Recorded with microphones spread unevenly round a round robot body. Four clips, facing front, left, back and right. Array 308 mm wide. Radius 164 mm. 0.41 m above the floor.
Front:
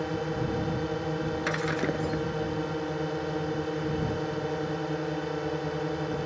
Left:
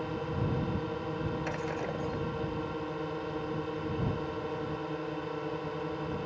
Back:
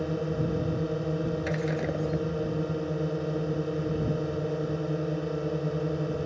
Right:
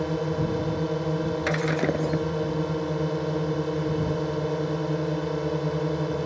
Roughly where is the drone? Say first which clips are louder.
Right 8 dB, back 1 dB; behind right.